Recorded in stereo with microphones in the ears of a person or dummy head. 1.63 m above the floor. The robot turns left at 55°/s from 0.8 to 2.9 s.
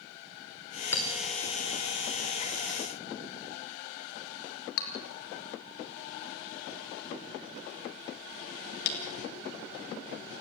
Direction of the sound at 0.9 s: 15° left (ahead or behind).